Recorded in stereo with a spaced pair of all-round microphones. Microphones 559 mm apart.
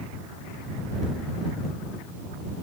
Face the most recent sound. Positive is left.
No sound to turn to.